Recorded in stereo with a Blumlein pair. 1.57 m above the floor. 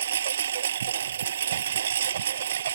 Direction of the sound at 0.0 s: 65° right.